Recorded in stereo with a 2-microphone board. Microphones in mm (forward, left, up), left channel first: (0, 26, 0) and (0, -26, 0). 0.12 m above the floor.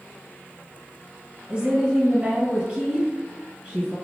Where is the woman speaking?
15° right (ahead or behind), 1.8 m.